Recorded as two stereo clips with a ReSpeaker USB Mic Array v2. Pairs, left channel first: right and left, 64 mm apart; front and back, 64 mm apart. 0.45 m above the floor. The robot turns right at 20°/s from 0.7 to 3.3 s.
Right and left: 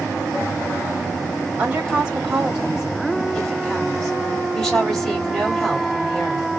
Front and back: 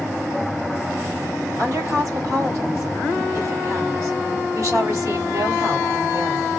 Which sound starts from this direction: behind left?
A woman speaking, at 1.6 s.